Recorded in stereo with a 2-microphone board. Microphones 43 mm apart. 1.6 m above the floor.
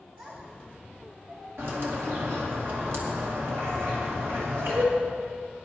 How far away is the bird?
About 2 m.